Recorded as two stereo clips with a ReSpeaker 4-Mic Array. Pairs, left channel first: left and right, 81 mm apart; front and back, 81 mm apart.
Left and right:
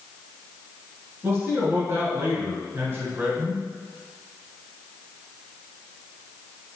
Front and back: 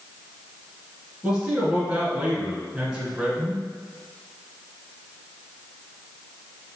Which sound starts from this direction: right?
A man speaking, at 1.2 s.